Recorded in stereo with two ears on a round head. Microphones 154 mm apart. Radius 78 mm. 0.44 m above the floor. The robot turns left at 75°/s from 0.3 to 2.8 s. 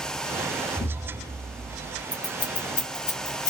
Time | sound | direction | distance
0.8 | an explosion | 25° left | 0.6 m
2.1 | scissors | 10° left (ahead or behind) | 1.4 m